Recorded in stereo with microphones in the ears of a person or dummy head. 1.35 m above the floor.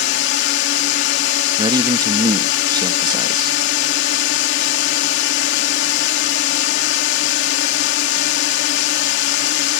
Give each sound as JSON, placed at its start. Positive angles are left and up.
{"t": 0.0, "sound": "a drone", "side_deg": 65}
{"t": 1.6, "sound": "a man speaking", "side_deg": -25}